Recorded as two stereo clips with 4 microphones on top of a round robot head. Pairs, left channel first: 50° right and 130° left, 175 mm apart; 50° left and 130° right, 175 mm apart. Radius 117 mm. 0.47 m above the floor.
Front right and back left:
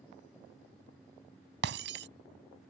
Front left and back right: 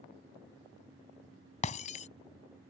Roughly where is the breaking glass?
Left.